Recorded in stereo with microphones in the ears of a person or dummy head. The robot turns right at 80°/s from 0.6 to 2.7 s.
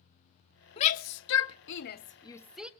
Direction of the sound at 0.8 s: 30° left (ahead or behind).